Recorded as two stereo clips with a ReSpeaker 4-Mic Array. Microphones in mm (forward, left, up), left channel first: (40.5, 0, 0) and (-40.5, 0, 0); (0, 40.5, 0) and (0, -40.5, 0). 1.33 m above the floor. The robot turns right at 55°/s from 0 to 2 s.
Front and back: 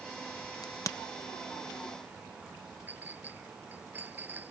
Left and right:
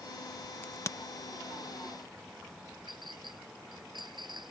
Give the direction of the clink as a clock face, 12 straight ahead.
4 o'clock.